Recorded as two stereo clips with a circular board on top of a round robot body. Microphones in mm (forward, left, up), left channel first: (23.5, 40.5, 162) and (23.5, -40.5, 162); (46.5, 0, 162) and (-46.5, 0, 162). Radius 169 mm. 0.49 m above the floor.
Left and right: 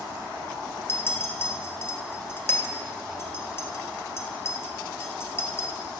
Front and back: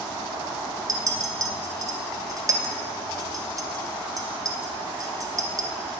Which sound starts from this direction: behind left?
A clink, at 0.9 s.